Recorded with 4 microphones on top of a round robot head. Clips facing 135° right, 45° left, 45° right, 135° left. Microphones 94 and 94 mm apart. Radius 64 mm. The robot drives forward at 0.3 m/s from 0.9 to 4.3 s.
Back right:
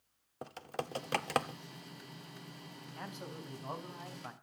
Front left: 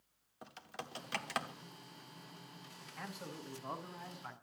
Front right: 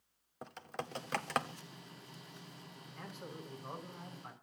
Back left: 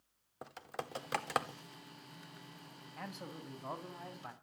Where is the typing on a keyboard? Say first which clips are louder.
Back right 8 dB, even; 140° right, 1.2 m; by 1.6 s 145° right, 1.3 m.